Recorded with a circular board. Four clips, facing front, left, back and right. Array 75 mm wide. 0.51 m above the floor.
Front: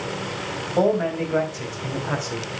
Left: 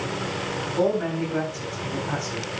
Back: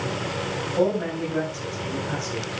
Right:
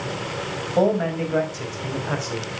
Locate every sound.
0.8 s a man speaking: 55° right, 4 m; by 2.5 s 45° right, 3 m